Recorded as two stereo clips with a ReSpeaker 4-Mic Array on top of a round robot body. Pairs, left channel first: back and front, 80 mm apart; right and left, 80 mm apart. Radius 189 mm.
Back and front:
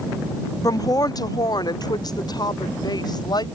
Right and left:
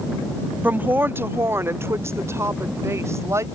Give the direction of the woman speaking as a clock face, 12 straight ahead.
7 o'clock.